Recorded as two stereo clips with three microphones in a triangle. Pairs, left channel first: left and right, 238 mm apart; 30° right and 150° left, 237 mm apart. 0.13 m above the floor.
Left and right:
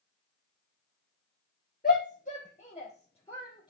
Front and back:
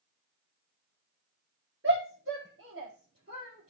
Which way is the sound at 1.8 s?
135° left.